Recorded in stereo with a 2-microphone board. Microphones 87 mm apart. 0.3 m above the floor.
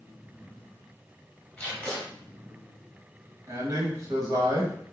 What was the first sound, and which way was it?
Tape being pulled, 10° left (ahead or behind).